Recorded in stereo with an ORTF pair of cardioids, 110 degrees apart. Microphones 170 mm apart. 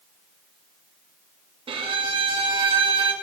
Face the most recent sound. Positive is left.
turn(degrees=-35)